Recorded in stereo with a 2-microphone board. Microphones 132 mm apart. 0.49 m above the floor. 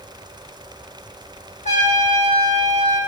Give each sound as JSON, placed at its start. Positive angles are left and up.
{"t": 1.6, "sound": "a trumpet", "side_deg": 60, "distance_m": 3.5}